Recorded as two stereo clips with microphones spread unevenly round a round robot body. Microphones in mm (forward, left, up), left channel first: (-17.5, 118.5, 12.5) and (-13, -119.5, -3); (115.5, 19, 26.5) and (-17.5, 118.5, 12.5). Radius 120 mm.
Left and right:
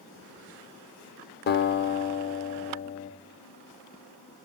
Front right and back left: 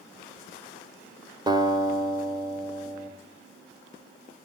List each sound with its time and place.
1.5 s a guitar: 80° left, 0.7 m